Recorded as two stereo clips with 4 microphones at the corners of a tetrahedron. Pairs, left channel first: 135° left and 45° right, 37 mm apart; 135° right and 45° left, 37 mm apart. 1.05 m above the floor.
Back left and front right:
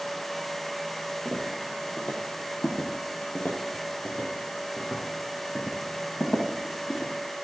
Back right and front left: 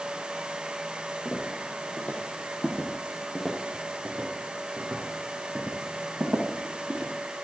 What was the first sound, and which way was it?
Footsteps, 175° right.